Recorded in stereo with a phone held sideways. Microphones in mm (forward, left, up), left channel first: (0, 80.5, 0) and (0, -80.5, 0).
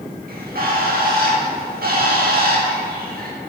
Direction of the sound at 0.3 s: 70° right (ahead or behind).